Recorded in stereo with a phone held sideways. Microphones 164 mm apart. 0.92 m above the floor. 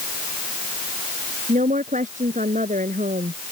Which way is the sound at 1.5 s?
50° right (ahead or behind).